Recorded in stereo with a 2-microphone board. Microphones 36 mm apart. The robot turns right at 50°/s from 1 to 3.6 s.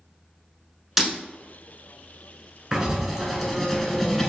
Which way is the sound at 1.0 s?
10° right (ahead or behind).